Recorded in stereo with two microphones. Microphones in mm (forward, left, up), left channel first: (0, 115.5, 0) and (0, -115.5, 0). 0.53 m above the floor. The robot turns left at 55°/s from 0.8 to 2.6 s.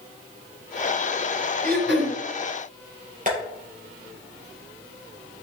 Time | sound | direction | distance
1.6 | throat clearing | 40° right (ahead or behind) | 1.6 m
3.3 | tapping | 35° right (ahead or behind) | 4 m